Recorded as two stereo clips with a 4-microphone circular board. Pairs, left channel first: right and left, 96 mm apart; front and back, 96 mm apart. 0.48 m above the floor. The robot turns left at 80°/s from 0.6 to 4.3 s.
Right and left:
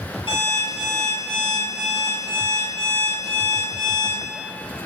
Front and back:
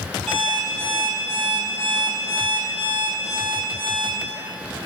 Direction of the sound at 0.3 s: 90° right.